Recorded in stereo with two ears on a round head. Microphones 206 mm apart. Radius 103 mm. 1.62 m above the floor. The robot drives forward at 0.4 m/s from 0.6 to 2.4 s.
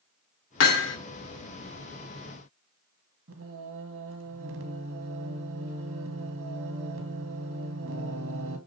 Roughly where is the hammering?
Left.